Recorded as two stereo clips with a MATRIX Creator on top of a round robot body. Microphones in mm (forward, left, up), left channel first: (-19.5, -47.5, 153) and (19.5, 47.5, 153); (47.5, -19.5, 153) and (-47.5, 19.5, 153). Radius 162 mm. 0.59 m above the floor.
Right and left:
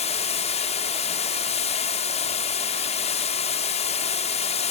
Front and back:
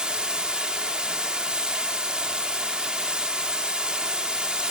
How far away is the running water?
About 0.9 m.